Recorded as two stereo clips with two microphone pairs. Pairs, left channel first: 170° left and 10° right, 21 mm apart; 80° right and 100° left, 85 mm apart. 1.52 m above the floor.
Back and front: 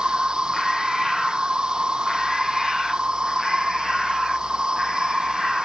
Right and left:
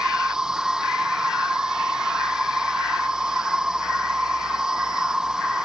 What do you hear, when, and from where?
0.0 s an insect: 20° left